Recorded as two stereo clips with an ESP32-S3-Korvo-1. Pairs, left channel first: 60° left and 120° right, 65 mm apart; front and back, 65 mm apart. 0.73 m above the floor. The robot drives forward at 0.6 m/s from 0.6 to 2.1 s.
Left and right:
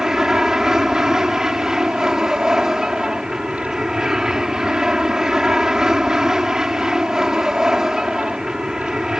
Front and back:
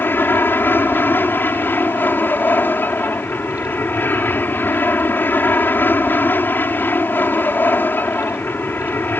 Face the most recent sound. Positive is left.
turn(degrees=-45)